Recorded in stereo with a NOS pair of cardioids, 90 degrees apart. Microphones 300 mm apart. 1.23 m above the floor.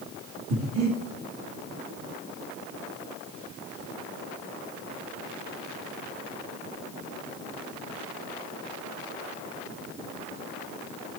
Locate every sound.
0.5 s breathing: 60° right, 1.7 m